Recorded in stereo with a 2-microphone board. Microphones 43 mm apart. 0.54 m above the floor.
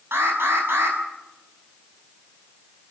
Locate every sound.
0.1 s an alarm: 70° right (ahead or behind), 6.5 m